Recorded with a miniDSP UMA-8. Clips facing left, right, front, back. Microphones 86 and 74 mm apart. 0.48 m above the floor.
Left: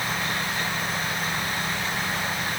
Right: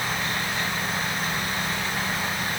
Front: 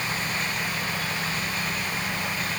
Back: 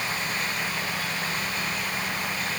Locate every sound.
Only background noise.